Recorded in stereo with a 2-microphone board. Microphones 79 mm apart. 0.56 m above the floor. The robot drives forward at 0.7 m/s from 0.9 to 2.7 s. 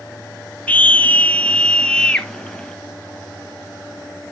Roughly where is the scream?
Centre.